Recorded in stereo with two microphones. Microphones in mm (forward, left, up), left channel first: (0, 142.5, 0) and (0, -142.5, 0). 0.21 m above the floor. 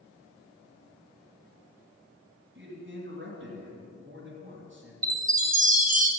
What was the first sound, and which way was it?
A man speaking, 45° right (ahead or behind).